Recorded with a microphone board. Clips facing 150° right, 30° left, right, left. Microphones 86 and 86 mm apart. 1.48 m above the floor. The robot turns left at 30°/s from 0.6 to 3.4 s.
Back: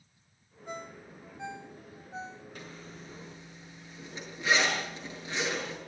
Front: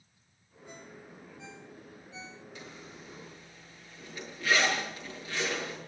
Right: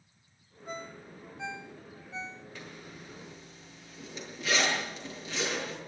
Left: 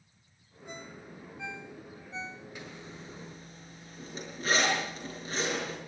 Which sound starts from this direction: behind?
A zipper, at 2.5 s.